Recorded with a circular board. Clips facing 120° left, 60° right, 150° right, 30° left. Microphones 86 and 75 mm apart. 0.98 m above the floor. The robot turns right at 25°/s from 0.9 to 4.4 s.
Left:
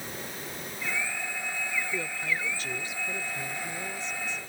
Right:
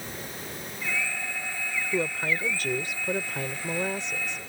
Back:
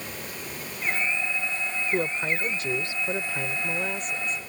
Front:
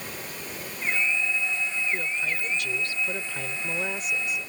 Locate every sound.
1.9 s a woman speaking: 105° right; by 4.4 s 45° right